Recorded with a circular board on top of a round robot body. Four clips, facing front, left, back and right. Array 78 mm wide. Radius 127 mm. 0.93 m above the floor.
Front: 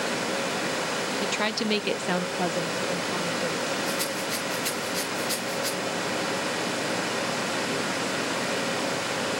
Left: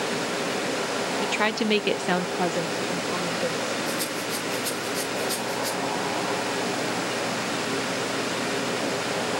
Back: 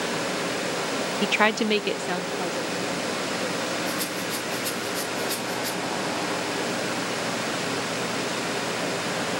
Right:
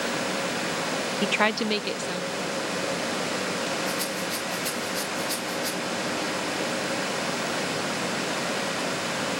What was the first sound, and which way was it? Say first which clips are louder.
A woman speaking: right 2 dB, back 9 dB; 150° right.